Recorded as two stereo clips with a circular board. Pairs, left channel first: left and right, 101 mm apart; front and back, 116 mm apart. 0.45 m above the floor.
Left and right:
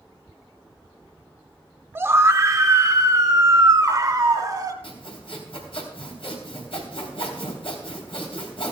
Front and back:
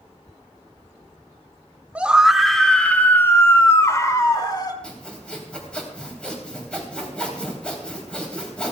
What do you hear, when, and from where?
1.9 s a scream: 115° right, 1.0 m; by 4.7 s 45° right, 1.7 m
4.8 s sawing: 80° left, 3 m